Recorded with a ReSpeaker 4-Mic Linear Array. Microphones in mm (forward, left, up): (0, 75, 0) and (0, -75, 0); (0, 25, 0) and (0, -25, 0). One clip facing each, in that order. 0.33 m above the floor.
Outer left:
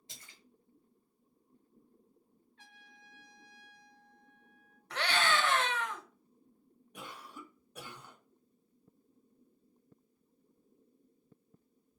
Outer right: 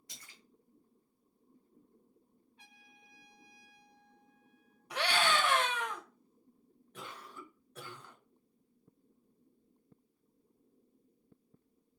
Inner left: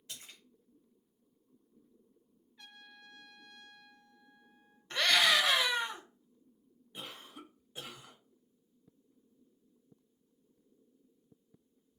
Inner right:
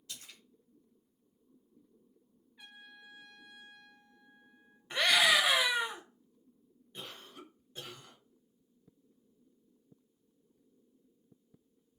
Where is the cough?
15° left (ahead or behind), 1.2 m.